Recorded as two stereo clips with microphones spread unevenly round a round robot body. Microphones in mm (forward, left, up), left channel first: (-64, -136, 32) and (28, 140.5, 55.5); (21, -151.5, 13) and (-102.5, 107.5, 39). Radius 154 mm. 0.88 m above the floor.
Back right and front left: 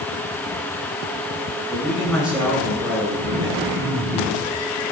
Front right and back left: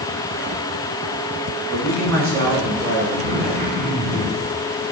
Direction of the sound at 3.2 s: 135° left.